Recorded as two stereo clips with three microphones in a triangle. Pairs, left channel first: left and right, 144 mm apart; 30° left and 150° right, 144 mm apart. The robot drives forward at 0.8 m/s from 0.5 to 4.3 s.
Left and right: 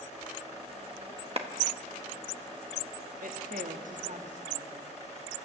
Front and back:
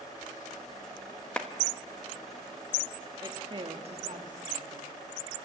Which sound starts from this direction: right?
A woman speaking, at 3.2 s.